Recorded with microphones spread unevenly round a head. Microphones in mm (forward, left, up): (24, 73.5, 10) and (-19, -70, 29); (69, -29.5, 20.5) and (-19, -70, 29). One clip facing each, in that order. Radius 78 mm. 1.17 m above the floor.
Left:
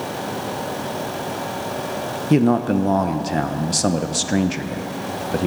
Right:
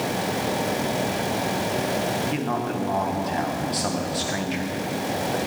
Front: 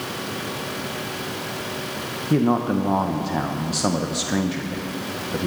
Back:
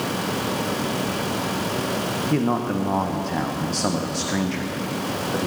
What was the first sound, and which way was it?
A man speaking, 105° left.